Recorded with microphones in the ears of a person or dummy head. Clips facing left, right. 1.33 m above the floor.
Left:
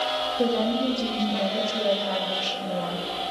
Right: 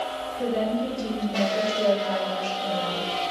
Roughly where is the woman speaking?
Left.